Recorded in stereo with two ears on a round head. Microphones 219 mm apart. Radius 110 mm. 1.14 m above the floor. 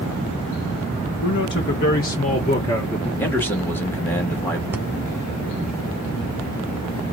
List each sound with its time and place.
1.2 s a man speaking: 55° left (ahead or behind), 1.3 m; by 3.1 s 5° left (ahead or behind), 0.8 m
3.2 s a man speaking: 10° left (ahead or behind), 1.9 m
4.7 s breathing: 10° right (ahead or behind), 1.4 m